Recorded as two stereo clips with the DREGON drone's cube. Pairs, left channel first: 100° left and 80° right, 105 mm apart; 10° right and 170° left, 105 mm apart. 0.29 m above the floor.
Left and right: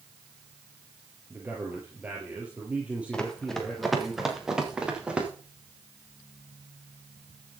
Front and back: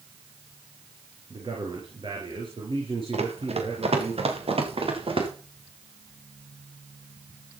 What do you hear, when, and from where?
1.3 s a man speaking: 150° right, 4.5 m; by 4.1 s 160° right, 6 m
3.1 s running footsteps: straight behind, 4 m; by 5.3 s 160° right, 6 m